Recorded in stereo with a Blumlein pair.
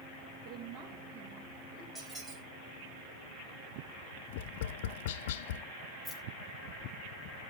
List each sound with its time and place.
0.5 s a woman speaking: 20° right, 4 m
1.9 s a squeak: 5° right, 4 m
4.3 s tapping: 55° left, 0.8 m
6.0 s keys jangling: 15° left, 2.5 m